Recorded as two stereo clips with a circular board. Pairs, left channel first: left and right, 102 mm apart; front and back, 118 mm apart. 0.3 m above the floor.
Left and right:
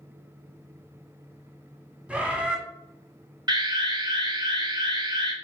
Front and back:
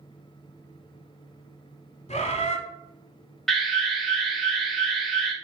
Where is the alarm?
85° right, 0.9 m.